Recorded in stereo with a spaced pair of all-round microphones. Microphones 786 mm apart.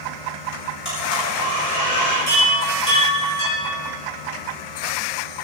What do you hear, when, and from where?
0.8 s a blender: 35° left (ahead or behind), 7 m
2.3 s a chime: 60° left (ahead or behind), 5.5 m